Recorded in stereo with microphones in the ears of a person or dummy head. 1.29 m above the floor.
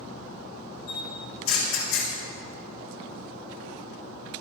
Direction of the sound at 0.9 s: 75° left (ahead or behind).